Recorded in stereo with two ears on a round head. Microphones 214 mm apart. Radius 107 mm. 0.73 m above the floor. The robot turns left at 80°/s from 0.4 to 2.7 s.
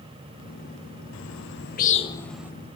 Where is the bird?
55° left (ahead or behind), 0.7 m; by 2.5 s 10° right (ahead or behind), 0.7 m.